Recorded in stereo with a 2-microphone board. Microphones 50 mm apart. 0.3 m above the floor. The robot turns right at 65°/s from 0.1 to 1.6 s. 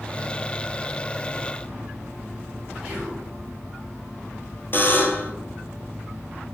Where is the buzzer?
45° left (ahead or behind), 1.1 m.